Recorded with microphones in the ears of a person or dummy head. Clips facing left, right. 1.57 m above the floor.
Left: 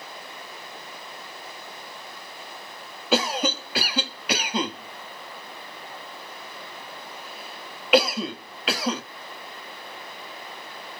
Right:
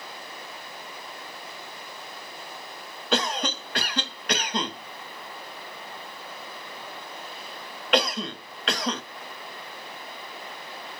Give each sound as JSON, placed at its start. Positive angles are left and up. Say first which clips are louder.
{"t": 3.1, "sound": "a cough", "louder": "left 3 dB", "side_deg": 5, "distance_m": 0.7}